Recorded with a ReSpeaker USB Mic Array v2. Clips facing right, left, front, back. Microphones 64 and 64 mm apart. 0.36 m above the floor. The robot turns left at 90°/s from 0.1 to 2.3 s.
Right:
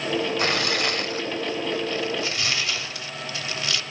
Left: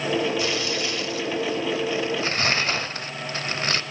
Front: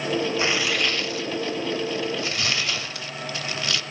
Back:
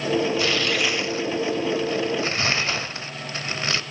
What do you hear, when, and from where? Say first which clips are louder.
0.4 s tearing paper: right 2 dB, back 1 dB; 60° right, 0.8 m; by 3.8 s 130° left, 0.8 m